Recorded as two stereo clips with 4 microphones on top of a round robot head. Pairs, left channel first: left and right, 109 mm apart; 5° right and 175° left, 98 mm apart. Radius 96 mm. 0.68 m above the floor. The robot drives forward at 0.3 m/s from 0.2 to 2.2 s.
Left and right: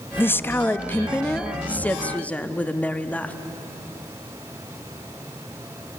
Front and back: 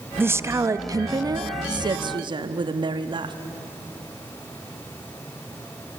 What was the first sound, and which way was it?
A woman speaking, 135° left.